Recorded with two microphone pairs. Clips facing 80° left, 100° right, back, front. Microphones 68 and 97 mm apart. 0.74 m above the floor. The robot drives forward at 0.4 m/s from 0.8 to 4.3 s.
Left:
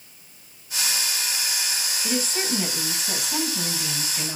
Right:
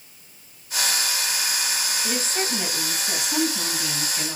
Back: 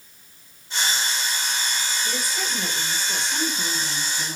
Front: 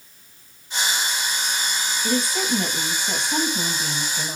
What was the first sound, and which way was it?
A woman speaking, 5° right.